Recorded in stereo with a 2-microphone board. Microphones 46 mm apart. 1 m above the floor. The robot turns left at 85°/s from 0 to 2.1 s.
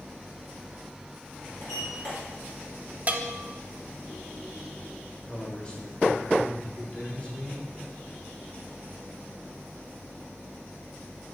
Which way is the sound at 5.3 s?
30° left (ahead or behind).